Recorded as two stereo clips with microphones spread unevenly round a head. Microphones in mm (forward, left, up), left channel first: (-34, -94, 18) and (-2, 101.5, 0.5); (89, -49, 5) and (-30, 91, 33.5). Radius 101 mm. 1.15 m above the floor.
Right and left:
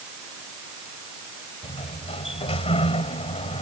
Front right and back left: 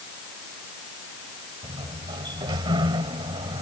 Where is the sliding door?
160° right.